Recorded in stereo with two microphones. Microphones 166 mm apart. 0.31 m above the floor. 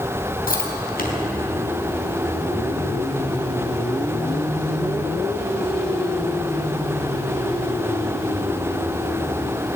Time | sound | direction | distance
0.5 | chewing | 60° left (ahead or behind) | 3 m